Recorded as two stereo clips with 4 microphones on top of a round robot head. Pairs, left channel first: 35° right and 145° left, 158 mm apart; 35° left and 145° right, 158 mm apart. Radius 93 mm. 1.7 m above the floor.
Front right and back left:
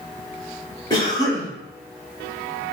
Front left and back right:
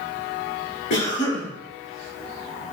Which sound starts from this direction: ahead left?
A cough, at 0.9 s.